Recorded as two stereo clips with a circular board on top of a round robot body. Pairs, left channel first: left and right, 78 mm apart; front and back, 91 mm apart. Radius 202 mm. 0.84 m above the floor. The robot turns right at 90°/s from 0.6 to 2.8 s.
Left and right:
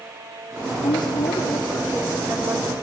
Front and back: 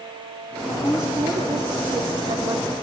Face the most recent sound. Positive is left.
turn(degrees=-100)